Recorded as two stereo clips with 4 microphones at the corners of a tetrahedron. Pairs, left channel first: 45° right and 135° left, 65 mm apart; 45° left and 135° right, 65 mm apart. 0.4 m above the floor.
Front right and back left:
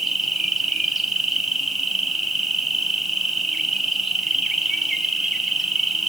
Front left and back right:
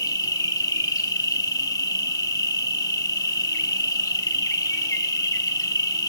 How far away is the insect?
About 0.9 m.